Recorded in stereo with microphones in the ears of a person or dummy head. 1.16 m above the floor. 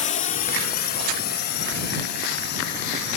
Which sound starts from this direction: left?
A drone, at 0.0 s.